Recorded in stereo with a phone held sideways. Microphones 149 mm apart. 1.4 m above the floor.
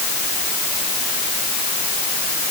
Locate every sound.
Only background noise.